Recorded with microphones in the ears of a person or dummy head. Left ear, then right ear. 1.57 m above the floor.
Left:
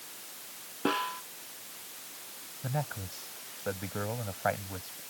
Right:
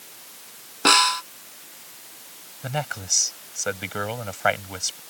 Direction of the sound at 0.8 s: 70° right (ahead or behind).